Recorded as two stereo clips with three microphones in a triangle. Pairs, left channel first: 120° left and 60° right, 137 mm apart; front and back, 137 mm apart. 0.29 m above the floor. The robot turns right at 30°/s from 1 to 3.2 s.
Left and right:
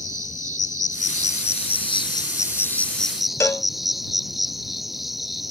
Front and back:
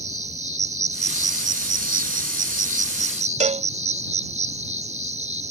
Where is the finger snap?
No finger snap in this recording.